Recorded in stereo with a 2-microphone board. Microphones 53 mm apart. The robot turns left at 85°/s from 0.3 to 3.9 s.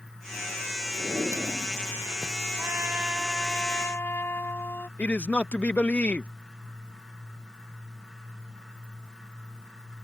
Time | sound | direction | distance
0.9 | a drawer | 75° right | ?
2.6 | a trumpet | 120° right | ?
5.0 | a man speaking | 30° left (ahead or behind) | ?